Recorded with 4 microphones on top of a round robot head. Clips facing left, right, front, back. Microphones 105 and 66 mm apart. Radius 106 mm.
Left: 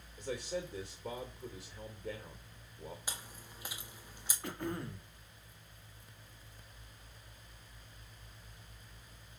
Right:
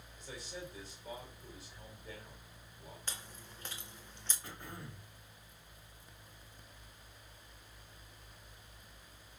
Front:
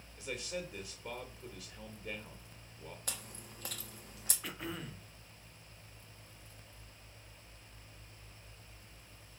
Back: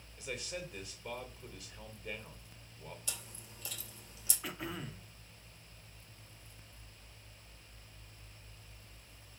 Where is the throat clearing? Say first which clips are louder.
Left 12 dB, back 1 dB; 95° left, 1.1 m.